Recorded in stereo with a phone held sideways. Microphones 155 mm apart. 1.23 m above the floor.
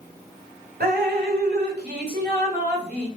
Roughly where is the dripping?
Right.